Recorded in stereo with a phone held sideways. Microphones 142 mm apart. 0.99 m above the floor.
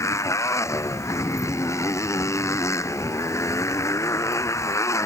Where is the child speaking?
I don't hear a child speaking.